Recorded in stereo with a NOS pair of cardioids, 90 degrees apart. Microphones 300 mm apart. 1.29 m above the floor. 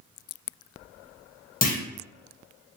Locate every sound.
1.6 s a clunk: 30° left, 1.0 m